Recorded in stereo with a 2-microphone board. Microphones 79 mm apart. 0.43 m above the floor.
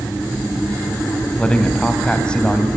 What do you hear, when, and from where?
1.4 s a man speaking: 10° left (ahead or behind), 3 m